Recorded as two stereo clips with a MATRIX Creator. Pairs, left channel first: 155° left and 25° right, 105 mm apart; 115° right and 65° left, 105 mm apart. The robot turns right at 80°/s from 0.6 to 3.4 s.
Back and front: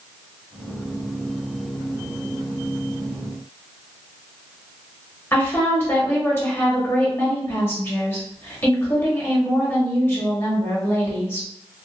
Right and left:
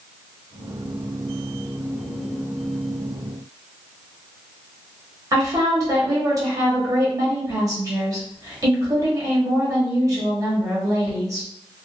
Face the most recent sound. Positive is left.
turn(degrees=100)